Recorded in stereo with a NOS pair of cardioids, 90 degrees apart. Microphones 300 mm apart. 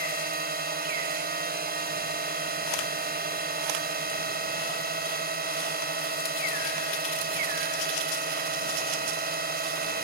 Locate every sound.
0.0 s a drone: 30° right